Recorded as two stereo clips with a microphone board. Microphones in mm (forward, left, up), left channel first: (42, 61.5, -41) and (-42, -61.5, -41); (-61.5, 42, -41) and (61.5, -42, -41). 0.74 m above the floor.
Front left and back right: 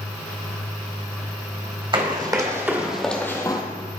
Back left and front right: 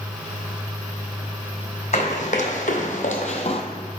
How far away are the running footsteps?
About 1.9 m.